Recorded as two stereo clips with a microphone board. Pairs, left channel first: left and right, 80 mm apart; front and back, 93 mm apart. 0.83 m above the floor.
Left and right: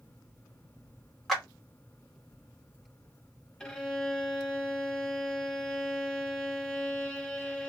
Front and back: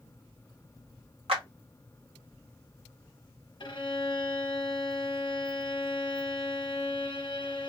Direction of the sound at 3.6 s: 5° left.